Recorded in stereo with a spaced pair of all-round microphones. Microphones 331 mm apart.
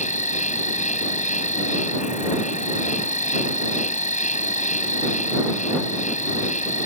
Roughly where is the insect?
Left.